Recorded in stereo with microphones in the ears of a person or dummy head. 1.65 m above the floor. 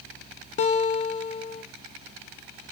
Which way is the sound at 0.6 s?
45° left (ahead or behind).